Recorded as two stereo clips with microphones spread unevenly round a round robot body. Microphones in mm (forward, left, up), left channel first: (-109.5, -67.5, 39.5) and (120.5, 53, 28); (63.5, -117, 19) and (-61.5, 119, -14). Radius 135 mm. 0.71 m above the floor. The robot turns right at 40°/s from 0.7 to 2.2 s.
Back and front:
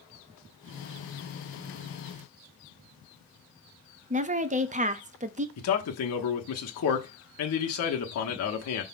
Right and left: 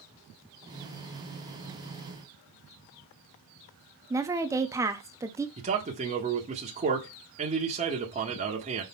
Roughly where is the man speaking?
Behind.